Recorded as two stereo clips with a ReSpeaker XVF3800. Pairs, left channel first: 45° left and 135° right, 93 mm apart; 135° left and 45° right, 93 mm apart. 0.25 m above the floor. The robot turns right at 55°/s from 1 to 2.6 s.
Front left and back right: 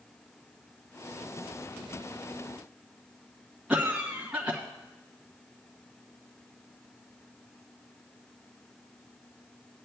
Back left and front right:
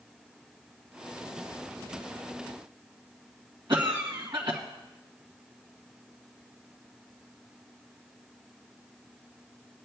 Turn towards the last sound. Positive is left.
turn(degrees=-55)